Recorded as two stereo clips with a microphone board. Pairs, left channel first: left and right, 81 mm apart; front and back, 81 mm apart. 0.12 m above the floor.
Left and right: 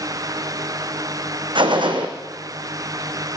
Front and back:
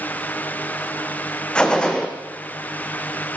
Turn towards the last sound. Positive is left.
turn(degrees=-80)